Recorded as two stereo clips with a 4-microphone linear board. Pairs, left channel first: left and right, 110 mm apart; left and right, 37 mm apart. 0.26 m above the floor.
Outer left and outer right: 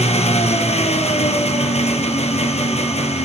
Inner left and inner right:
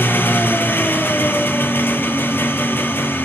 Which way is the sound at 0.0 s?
75° left (ahead or behind).